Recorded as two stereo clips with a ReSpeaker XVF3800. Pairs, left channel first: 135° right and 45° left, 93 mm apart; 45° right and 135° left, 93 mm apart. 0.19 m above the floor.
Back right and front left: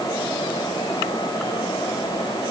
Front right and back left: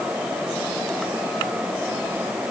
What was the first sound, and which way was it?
Only background noise.